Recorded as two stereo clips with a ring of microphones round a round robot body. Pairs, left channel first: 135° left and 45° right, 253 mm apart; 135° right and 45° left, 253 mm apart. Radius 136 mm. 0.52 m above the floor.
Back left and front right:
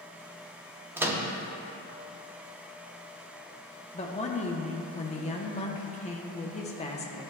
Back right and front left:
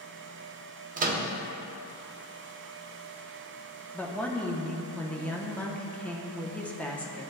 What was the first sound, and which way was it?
A microwave, 30° left.